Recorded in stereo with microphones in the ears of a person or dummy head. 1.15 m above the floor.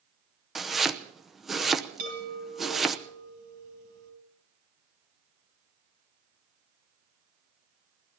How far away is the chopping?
About 0.7 m.